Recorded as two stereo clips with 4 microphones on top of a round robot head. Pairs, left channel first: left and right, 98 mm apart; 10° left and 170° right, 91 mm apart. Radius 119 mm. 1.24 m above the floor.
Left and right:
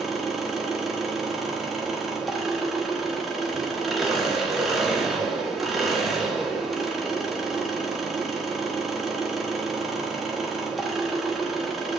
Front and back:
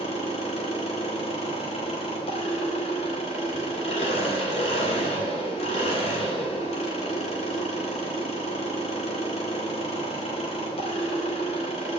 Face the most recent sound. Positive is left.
turn(degrees=0)